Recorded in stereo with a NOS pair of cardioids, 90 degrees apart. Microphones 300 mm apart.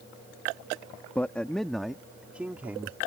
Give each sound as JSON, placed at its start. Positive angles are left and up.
{"t": 1.1, "sound": "a man speaking", "azimuth_deg": 5}